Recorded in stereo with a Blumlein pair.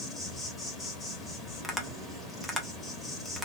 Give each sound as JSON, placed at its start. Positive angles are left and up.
{"t": 0.0, "sound": "an insect", "azimuth_deg": 15, "distance_m": 2.0}
{"t": 1.6, "sound": "tapping", "azimuth_deg": 5, "distance_m": 1.1}